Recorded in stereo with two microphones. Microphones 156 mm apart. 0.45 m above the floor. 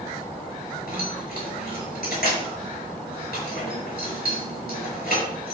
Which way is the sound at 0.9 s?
75° left (ahead or behind).